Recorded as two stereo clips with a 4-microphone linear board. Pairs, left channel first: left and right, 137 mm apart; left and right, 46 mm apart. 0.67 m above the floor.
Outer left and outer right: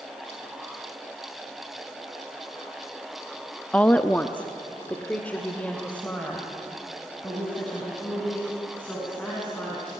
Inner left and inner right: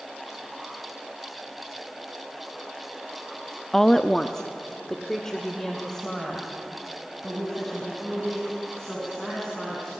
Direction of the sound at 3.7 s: 10° left (ahead or behind).